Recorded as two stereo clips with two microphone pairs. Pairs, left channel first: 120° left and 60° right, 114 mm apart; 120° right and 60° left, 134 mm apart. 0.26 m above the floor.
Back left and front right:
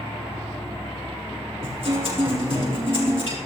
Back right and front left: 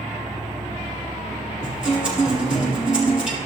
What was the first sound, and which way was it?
An insect, 45° left.